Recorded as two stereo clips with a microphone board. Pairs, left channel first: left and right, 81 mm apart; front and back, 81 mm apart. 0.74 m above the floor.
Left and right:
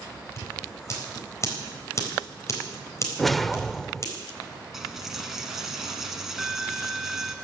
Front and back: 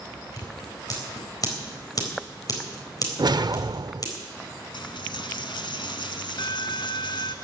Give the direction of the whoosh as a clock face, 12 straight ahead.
6 o'clock.